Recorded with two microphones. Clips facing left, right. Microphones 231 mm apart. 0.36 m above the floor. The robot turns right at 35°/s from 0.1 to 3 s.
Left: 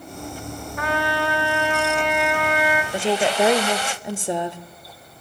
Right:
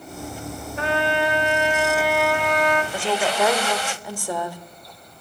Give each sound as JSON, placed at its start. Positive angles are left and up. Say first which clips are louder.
{"t": 0.8, "sound": "a trumpet", "louder": "right 2 dB", "azimuth_deg": -55, "distance_m": 1.6}
{"t": 2.9, "sound": "a woman speaking", "louder": "left 3 dB", "side_deg": 25, "distance_m": 0.9}